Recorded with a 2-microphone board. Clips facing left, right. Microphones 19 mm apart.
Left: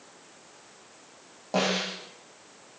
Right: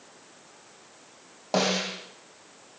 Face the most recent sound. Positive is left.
turn(degrees=-35)  # may be behind; listen again after turning